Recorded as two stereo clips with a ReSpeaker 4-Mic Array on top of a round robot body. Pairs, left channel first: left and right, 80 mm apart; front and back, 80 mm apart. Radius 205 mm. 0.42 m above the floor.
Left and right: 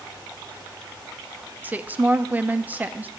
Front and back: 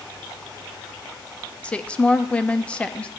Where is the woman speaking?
55° right, 1.0 m.